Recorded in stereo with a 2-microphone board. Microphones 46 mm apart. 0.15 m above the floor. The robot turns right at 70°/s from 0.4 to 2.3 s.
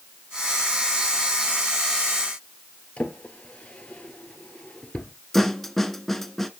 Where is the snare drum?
5° left (ahead or behind), 0.7 m.